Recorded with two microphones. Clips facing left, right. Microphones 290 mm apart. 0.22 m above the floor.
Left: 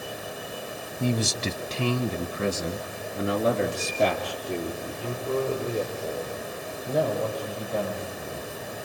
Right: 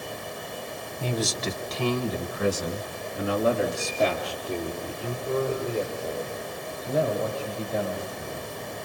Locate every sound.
1.0 s a man speaking: 30° left (ahead or behind), 1.3 m; by 8.5 s 15° left (ahead or behind), 9.5 m